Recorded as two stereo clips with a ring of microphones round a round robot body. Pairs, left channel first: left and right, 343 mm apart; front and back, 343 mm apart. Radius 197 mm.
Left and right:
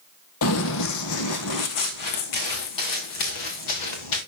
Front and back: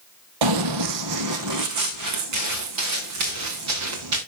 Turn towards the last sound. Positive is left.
turn(degrees=130)